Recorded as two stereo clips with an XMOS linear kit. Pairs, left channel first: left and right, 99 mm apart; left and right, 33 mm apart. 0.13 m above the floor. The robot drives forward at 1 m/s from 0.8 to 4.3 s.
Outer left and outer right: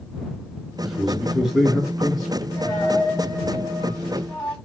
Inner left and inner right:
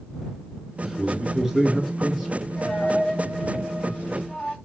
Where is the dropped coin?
20° left (ahead or behind), 3 m; by 4.5 s 10° left (ahead or behind), 4.5 m.